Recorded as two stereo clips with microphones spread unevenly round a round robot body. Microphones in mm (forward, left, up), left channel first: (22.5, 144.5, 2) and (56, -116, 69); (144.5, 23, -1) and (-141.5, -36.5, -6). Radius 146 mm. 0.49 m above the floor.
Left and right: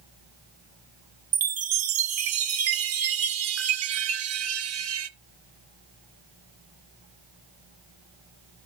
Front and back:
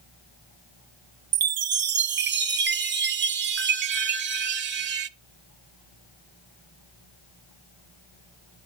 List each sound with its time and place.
1.3 s a chime: 115° right, 0.7 m